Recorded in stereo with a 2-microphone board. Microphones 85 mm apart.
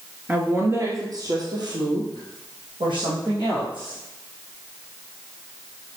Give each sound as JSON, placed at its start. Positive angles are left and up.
{"t": 0.3, "sound": "a woman speaking", "side_deg": -15, "distance_m": 1.3}